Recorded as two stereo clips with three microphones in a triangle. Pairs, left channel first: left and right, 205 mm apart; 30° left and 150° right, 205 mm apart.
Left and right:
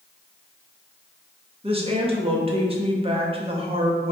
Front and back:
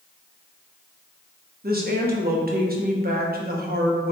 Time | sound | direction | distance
1.6 | a woman speaking | 145° right | 0.8 m